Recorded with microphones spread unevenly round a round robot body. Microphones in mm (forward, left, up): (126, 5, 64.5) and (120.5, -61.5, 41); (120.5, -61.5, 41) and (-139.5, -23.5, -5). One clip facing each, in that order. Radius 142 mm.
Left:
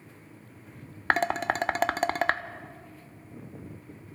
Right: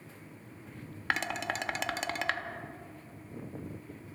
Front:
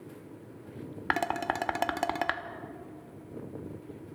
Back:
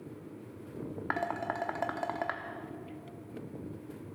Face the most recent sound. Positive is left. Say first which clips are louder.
# left 7 dB, front 7 dB
turn(degrees=30)